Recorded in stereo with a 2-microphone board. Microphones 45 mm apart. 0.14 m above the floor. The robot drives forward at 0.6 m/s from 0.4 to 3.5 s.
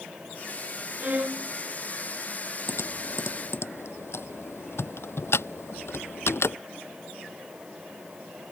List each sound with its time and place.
1.0 s a violin: 40° right (ahead or behind); by 1.5 s 35° right (ahead or behind)
2.7 s typing on a keyboard: 70° left (ahead or behind)